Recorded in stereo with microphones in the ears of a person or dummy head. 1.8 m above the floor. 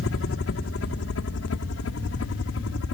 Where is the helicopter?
60° left (ahead or behind); by 2.9 s 65° left (ahead or behind).